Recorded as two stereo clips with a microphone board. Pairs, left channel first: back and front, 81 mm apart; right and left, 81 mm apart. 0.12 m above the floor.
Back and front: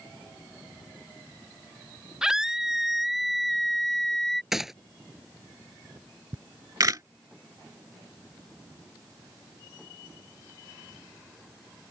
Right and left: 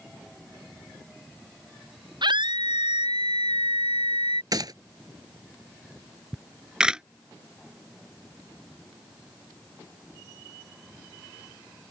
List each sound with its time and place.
2.2 s a scream: 80° left; by 4.4 s 95° left
4.5 s a gunshot: 85° left
6.3 s a camera shutter: 15° left